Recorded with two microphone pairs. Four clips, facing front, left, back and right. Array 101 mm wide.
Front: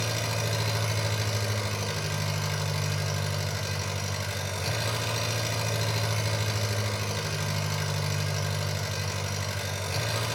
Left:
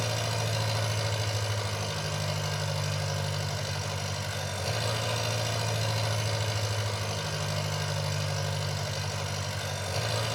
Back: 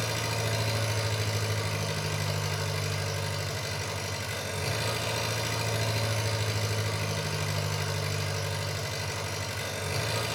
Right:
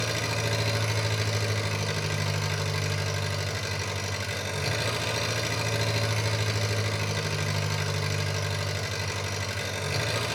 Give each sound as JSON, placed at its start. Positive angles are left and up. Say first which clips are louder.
{"t": 0.0, "sound": "an engine running", "louder": "right 2 dB, front 1 dB", "azimuth_deg": -80, "distance_m": 5.0}